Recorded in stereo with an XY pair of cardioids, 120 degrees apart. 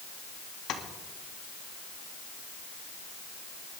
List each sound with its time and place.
0.7 s tapping: 70° left, 2 m